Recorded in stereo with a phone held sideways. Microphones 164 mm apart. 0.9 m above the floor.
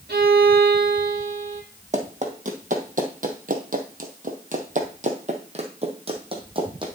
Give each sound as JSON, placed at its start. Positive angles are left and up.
{"t": 0.1, "sound": "a violin", "side_deg": -80, "distance_m": 1.8}
{"t": 1.9, "sound": "running footsteps", "side_deg": -45, "distance_m": 1.9}